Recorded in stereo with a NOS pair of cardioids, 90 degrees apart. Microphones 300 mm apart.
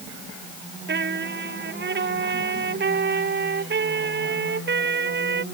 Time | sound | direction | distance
0.9 | a trumpet | 35° right | ?